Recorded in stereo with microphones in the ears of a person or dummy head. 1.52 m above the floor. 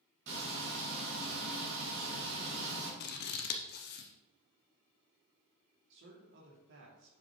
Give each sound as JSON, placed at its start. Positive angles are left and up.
{"t": 0.3, "sound": "frying", "side_deg": -65, "distance_m": 3.0}
{"t": 3.0, "sound": "scissors", "side_deg": 55, "distance_m": 0.8}
{"t": 5.9, "sound": "a man speaking", "side_deg": -65, "distance_m": 2.5}